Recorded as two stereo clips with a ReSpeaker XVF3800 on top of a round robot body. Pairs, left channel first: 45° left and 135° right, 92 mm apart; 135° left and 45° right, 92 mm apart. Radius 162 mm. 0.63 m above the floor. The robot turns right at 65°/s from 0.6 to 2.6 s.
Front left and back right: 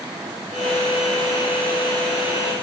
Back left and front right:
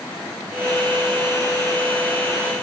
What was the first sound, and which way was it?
Only background noise.